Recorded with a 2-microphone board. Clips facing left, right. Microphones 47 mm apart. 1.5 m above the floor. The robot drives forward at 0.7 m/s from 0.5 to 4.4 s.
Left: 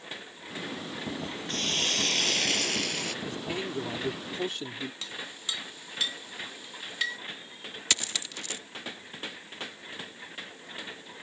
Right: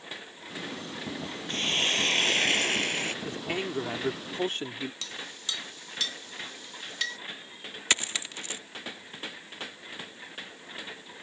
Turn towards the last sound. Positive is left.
turn(degrees=-30)  # may be behind; listen again after turning